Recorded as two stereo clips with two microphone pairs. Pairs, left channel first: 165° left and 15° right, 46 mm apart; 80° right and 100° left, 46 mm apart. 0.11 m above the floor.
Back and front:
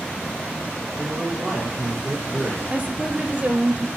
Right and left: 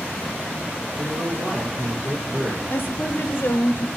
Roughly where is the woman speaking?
Ahead right.